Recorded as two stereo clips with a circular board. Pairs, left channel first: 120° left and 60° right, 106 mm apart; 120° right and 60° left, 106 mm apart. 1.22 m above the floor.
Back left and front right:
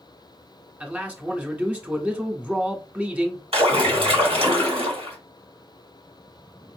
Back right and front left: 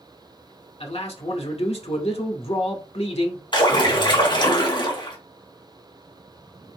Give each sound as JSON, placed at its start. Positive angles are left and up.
{"t": 0.8, "sound": "a man speaking", "azimuth_deg": -135, "distance_m": 1.3}
{"t": 3.5, "sound": "a splash", "azimuth_deg": -80, "distance_m": 3.0}